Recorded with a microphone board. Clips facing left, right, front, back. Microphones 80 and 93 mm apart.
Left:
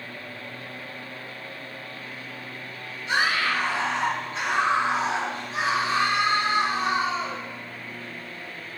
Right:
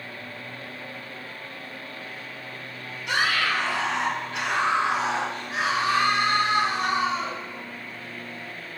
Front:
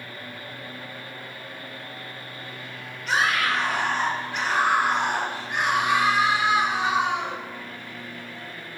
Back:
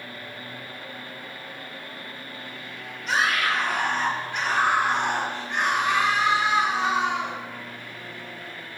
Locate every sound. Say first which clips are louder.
3.1 s a scream: even, front 1 dB; 85° right, 6 m; by 7.4 s 70° right, 4 m